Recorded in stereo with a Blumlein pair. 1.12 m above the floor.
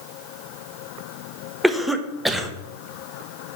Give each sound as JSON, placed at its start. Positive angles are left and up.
{"t": 1.6, "sound": "a cough", "azimuth_deg": 0, "distance_m": 0.9}